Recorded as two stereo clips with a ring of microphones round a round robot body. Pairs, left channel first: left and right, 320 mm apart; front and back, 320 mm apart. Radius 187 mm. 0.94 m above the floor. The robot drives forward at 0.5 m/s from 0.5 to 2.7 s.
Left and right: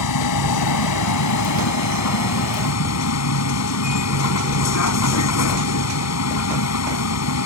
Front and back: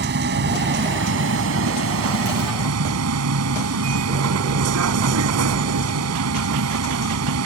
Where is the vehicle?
115° left; by 7.5 s 130° left.